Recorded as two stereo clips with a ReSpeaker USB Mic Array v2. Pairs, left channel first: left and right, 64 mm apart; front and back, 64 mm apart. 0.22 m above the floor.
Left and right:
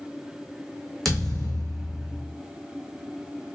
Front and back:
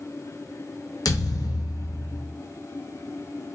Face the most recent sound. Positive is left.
turn(degrees=5)